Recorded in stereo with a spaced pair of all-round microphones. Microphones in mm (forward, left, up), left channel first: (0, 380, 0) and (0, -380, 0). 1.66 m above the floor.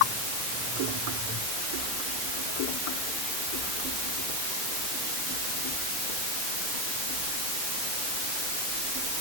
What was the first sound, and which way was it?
Only background noise.